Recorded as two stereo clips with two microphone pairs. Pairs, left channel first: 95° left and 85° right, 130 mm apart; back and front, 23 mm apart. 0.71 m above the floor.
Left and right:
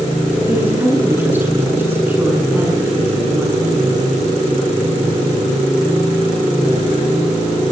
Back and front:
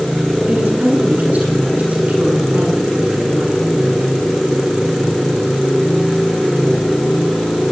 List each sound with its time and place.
0.5 s a woman speaking: 10° right, 9 m